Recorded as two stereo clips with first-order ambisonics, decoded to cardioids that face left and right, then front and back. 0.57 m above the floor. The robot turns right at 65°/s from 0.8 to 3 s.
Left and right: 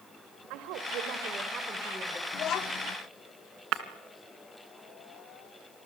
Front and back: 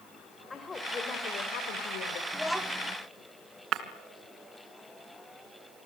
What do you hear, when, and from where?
0.5 s a woman speaking: 75° right, 2 m; by 2.2 s 15° left, 2 m
2.3 s a child speaking: 75° left, 0.8 m; by 3.0 s 120° left, 0.8 m
3.7 s breaking glass: 130° right, 1.9 m